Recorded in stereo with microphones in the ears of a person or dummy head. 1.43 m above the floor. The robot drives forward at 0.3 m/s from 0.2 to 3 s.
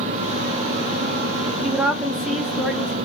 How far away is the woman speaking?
About 0.6 m.